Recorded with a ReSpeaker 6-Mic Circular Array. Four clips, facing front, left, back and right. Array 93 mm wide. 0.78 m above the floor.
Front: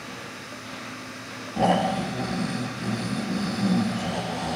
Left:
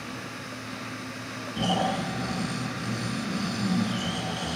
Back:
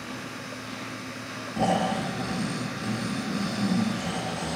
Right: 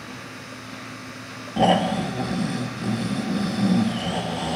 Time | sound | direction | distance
1.6 | snoring | 85° right | 3 m